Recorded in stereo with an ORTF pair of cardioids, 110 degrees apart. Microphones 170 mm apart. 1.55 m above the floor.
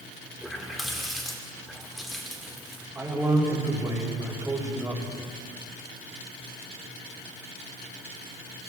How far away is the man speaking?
About 6 m.